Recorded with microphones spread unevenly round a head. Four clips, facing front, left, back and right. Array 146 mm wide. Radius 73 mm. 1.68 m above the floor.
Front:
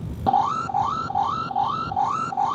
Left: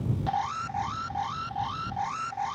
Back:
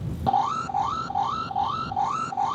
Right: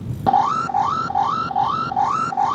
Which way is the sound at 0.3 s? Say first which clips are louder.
Right 15 dB, front 3 dB; 75° right.